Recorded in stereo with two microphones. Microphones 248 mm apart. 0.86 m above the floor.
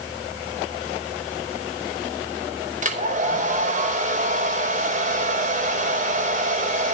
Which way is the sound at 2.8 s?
30° right (ahead or behind).